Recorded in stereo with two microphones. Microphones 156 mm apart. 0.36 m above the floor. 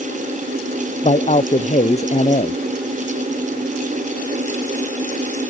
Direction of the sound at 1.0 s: 45° left (ahead or behind).